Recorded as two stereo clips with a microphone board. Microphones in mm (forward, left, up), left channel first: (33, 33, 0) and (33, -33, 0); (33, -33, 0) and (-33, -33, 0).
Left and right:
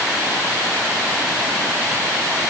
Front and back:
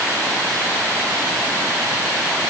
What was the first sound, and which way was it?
Only background noise.